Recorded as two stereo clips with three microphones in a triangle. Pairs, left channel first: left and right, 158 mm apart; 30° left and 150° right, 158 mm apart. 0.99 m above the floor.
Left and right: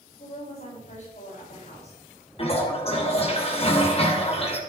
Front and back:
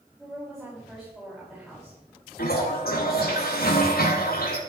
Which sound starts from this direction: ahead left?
A toilet flushing, at 2.4 s.